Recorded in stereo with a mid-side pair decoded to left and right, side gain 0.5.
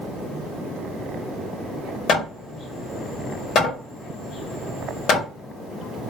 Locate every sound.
2.1 s hammering: 60° left, 2 m